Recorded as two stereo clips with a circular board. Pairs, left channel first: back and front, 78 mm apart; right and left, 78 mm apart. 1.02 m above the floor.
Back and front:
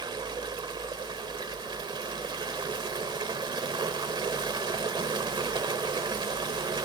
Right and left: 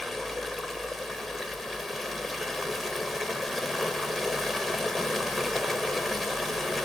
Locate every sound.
0.0 s running water: straight ahead, 1.9 m